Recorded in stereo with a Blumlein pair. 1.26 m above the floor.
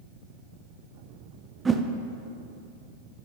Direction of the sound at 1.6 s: 15° right.